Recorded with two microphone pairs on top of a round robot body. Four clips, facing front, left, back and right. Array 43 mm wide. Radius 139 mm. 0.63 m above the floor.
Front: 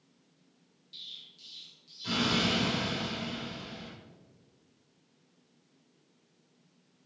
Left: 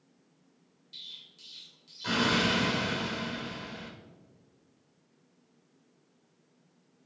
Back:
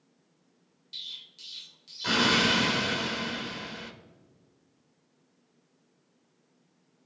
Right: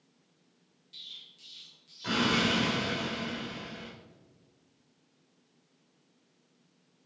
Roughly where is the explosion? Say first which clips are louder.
Even, back 5 dB; behind.